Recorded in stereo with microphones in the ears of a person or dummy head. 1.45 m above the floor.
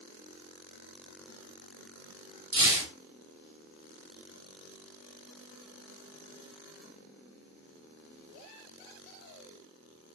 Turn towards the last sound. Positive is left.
turn(degrees=-25)  # may be behind; listen again after turning